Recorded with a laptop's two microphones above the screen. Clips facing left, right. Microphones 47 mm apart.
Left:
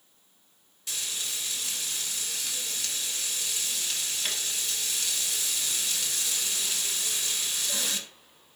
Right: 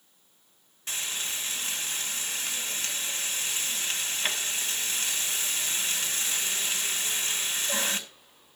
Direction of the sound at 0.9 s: 35° right (ahead or behind).